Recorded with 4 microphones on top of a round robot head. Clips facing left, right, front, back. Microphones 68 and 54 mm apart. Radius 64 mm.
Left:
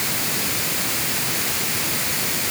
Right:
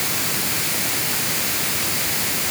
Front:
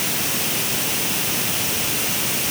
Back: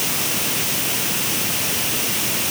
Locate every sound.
Only background noise.